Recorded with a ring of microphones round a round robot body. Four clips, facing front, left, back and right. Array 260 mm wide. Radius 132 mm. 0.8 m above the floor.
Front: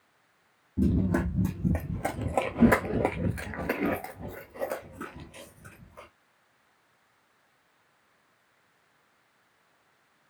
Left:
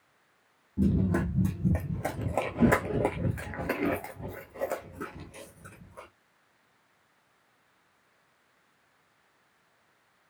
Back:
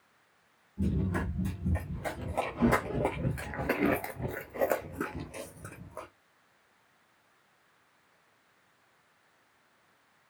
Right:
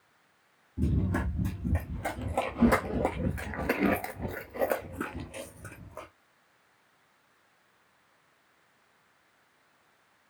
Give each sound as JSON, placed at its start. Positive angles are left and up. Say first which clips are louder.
{"t": 0.8, "sound": "running footsteps", "louder": "left 4 dB, front 6 dB", "azimuth_deg": 30, "distance_m": 1.6}